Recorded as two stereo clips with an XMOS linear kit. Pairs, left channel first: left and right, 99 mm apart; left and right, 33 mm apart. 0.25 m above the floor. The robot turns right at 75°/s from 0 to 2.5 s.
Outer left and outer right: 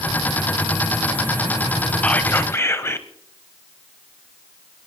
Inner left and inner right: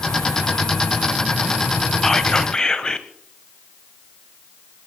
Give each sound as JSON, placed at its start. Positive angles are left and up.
{"t": 2.0, "sound": "whispering", "side_deg": 15, "distance_m": 1.2}